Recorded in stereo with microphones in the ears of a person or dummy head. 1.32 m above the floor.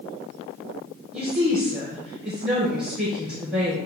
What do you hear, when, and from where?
1.1 s a woman speaking: centre (ahead or behind), 1.1 m